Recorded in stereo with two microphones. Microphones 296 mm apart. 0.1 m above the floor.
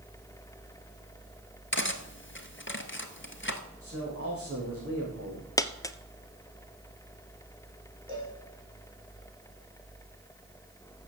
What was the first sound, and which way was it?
Cutlery clinking, 40° left (ahead or behind).